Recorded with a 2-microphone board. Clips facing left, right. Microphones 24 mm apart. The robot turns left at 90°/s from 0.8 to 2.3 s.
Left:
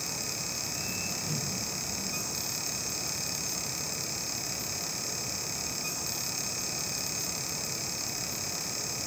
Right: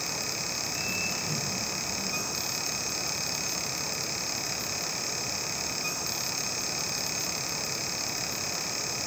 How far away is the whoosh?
About 3.5 m.